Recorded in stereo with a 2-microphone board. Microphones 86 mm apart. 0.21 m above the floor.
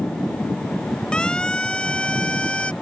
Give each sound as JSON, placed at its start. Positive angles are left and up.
{"t": 1.1, "sound": "a siren", "side_deg": 10}